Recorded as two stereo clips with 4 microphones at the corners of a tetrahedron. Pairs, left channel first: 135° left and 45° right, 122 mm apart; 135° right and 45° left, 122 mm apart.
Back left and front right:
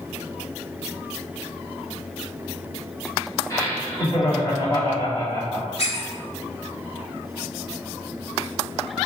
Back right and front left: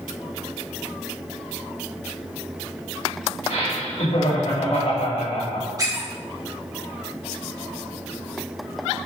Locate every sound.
3.5 s laughter: 160° right, 3.5 m
5.8 s a squeak: 105° left, 2.5 m